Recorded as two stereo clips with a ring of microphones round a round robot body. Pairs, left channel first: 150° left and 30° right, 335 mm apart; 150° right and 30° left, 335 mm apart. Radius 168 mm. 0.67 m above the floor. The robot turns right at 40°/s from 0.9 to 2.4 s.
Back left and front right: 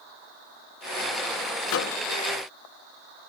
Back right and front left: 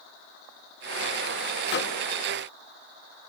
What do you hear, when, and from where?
1.7 s a microwave: 165° left, 0.6 m; by 2.0 s straight behind, 0.6 m